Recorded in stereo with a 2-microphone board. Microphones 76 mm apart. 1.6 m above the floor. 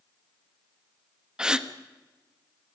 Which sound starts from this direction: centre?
A gasp, at 1.4 s.